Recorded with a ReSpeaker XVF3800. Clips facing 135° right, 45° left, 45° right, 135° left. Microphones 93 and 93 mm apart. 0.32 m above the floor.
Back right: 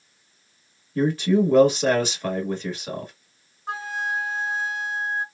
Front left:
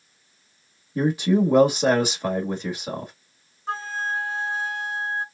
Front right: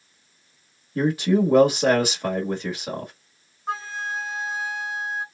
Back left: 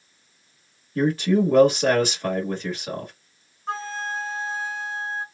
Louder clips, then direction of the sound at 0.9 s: Even, even; straight ahead.